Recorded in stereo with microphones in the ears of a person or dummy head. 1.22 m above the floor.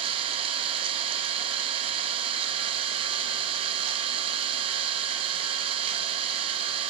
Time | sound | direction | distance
0.0 | an engine running | 30° right (ahead or behind) | 1.7 m